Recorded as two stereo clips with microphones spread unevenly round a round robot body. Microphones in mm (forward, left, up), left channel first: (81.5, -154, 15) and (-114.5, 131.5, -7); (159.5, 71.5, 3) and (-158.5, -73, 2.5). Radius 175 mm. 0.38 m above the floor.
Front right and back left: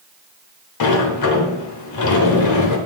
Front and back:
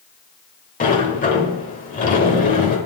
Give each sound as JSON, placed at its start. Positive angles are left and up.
{"t": 0.8, "sound": "a sliding door", "azimuth_deg": -35, "distance_m": 1.1}